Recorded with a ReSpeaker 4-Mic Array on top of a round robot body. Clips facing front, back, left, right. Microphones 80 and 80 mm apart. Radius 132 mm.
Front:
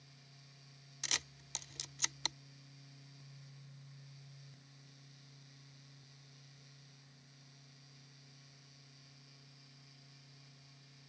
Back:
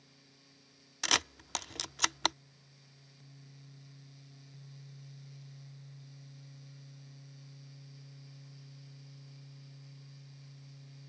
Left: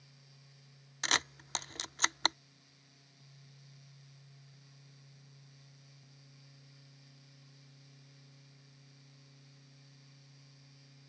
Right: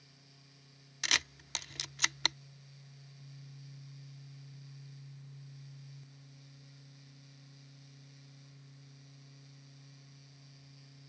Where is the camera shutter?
145° left.